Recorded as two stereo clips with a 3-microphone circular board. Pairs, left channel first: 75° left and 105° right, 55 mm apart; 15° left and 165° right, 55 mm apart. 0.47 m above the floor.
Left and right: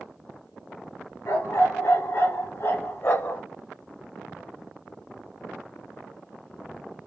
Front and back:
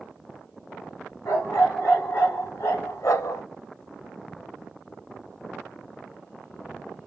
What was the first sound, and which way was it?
A dog barking, 50° left.